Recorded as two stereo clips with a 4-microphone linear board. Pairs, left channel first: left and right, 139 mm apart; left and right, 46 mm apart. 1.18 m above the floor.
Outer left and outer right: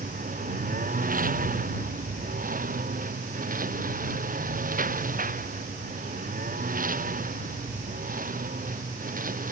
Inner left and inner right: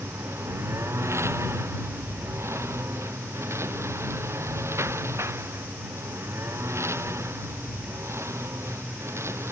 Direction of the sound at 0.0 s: 85° right.